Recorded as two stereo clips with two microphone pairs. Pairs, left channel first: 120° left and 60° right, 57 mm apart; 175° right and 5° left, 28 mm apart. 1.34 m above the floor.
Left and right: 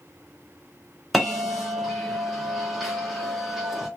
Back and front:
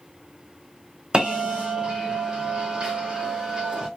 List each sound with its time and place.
1.1 s a bell: 25° left, 1.0 m